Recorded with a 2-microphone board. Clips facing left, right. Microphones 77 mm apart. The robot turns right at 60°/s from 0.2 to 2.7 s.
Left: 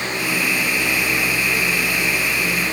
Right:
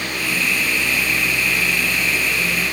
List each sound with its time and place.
Only background noise.